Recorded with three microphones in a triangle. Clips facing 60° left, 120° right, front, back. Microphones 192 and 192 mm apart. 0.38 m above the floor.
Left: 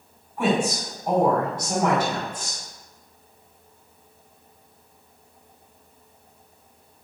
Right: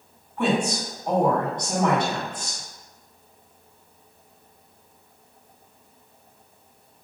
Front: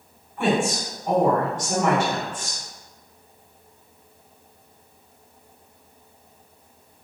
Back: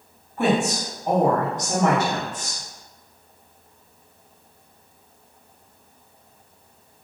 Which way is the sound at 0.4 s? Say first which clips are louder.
Left 1 dB, back 1 dB; 140° left.